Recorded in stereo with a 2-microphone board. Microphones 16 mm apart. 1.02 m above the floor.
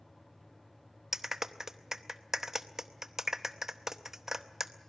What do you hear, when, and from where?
1.1 s a clap: 30° right (ahead or behind), 0.8 m